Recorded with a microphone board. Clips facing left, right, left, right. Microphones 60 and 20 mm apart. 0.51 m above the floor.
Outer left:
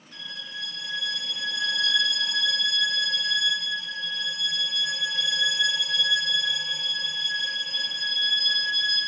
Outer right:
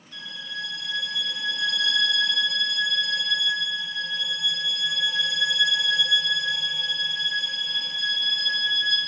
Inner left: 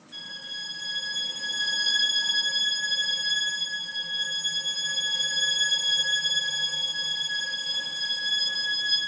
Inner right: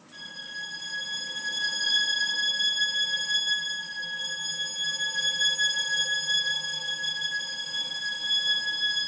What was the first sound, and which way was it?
A violin, 15° left (ahead or behind).